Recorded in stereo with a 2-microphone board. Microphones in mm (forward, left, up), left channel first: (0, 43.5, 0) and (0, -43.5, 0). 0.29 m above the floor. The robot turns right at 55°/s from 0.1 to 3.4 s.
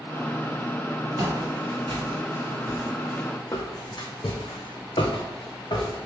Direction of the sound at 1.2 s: 55° right (ahead or behind).